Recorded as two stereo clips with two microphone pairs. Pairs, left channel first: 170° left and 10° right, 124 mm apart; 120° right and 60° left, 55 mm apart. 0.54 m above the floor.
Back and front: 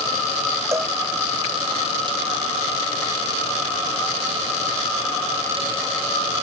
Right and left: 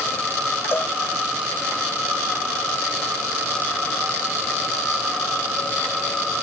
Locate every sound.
0.7 s a cowbell: 75° right